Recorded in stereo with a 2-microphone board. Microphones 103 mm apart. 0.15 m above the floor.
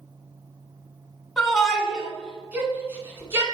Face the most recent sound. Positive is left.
turn(degrees=-25)  # may be behind; listen again after turning